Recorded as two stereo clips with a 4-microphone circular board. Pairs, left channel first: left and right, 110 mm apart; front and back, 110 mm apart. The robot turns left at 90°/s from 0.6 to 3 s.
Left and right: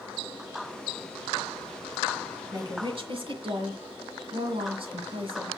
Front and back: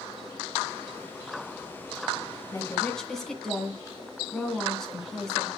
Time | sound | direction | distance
2.5 | a woman speaking | 40° right | 2 m